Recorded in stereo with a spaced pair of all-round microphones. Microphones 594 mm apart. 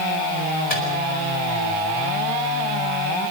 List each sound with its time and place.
0.7 s a microwave: 85° left, 6.5 m